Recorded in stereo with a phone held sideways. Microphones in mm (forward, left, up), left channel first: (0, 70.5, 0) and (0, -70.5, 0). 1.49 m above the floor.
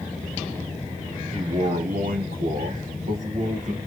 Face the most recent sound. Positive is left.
turn(degrees=-55)  # may be behind; listen again after turning